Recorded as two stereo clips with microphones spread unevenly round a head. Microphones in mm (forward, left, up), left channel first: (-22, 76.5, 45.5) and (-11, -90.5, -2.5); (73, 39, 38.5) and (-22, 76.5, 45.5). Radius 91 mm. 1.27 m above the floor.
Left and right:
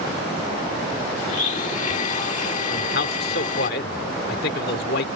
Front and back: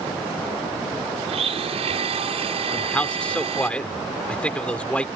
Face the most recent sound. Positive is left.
turn(degrees=60)